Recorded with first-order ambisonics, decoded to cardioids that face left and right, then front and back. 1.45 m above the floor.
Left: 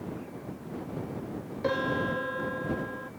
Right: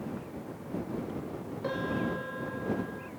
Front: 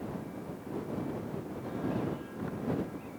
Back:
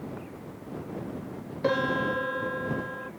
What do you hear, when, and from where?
1.6 s a piano: 160° left